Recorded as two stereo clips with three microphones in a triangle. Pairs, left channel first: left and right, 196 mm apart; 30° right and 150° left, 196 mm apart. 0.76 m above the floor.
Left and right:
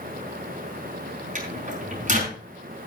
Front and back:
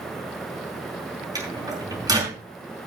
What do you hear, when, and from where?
1.4 s a microwave: 140° right, 5 m